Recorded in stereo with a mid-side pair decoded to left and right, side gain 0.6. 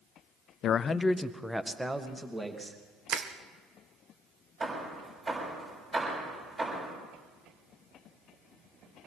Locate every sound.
0.6 s a man speaking: 60° left, 0.6 m; by 2.8 s 15° right, 3 m
3.1 s crushing: 50° right, 1.5 m
4.6 s hammering: 30° right, 7 m